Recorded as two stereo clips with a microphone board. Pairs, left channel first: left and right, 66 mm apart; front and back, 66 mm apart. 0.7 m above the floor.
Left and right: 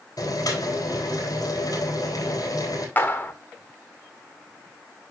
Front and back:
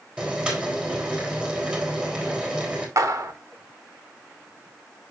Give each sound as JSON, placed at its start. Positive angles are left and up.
{"t": 0.2, "sound": "boiling", "azimuth_deg": 105, "distance_m": 3.0}
{"t": 3.0, "sound": "a clap", "azimuth_deg": 150, "distance_m": 1.3}